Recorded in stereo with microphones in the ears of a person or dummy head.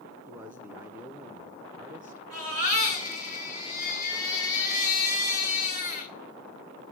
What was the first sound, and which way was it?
A man speaking, 10° right (ahead or behind).